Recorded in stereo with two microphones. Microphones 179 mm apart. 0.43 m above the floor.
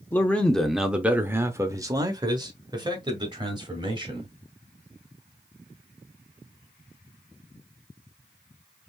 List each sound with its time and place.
0.1 s a man speaking: 10° left (ahead or behind), 0.8 m; by 4.3 s 25° right (ahead or behind), 2.5 m